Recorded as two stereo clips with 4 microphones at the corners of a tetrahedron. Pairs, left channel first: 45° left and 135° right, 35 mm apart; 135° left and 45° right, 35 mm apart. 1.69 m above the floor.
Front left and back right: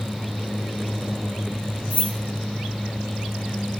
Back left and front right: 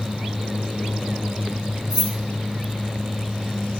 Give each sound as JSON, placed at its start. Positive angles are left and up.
{"t": 1.9, "sound": "keys jangling", "azimuth_deg": 60, "distance_m": 1.9}